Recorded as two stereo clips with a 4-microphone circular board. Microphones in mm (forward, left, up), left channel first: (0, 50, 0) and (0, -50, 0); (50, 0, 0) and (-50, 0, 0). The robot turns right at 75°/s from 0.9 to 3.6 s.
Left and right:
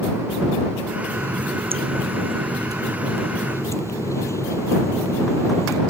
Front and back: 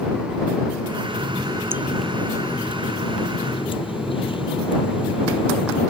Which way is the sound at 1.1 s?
160° right.